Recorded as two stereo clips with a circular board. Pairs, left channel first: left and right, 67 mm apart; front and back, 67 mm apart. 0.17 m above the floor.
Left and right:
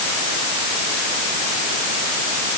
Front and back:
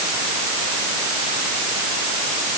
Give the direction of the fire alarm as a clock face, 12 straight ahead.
No fire alarm in this recording.